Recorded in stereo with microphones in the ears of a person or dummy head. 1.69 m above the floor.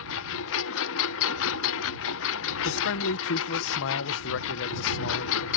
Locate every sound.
0.0 s a lawn mower: 70° left (ahead or behind)
2.6 s a man speaking: 60° left (ahead or behind)